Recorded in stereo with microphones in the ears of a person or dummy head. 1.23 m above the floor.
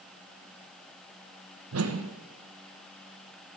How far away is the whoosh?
About 0.9 m.